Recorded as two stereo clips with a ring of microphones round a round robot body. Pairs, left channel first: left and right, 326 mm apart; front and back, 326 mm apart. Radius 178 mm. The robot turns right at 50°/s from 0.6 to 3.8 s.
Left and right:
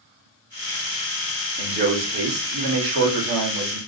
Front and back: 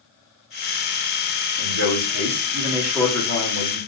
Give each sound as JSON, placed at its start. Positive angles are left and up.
{"t": 1.6, "sound": "a man speaking", "azimuth_deg": -160, "distance_m": 2.5}